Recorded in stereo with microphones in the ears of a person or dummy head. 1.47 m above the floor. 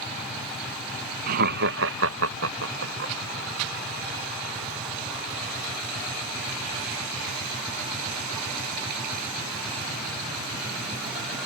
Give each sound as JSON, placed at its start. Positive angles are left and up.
{"t": 1.3, "sound": "laughter", "side_deg": -45}